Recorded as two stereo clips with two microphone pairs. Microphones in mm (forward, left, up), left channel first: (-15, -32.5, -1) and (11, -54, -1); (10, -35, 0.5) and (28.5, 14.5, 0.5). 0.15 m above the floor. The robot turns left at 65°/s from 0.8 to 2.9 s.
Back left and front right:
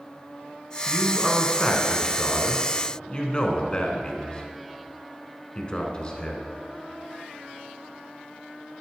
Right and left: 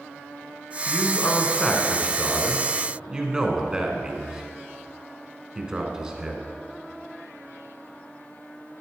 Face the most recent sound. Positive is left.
turn(degrees=130)